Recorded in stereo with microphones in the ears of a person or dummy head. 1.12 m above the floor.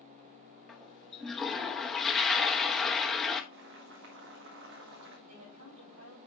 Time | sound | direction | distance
0.7 | a toilet flushing | centre (ahead or behind) | 0.9 m
3.5 | boiling | 60° right (ahead or behind) | 1.6 m
5.3 | a woman speaking | 85° right | 5.5 m